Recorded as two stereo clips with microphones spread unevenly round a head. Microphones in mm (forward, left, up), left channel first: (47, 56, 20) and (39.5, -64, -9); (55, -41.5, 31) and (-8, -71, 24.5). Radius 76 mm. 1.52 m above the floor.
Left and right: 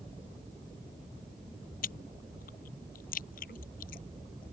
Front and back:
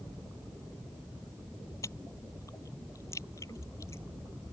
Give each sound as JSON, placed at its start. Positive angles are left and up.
{"t": 1.8, "sound": "chewing", "azimuth_deg": 95}